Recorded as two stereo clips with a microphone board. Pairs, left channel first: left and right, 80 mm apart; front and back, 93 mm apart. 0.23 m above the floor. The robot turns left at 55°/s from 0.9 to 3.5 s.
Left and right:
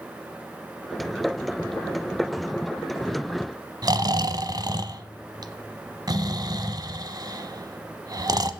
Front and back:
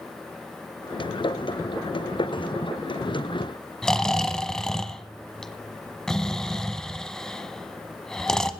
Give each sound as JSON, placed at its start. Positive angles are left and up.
{"t": 3.8, "sound": "snoring", "azimuth_deg": -85, "distance_m": 1.0}